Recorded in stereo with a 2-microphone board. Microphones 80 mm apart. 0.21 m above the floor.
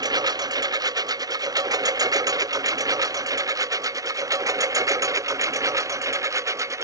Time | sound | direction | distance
0.0 | a lawn mower | 55° right (ahead or behind) | ?